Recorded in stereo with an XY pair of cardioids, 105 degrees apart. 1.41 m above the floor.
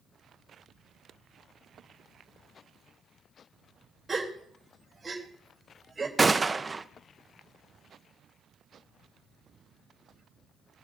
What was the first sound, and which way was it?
A gasp, 20° right.